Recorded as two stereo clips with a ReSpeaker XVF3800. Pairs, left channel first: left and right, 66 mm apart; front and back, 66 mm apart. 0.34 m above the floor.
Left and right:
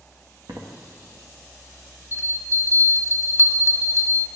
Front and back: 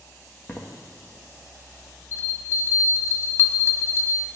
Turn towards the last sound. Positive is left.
turn(degrees=45)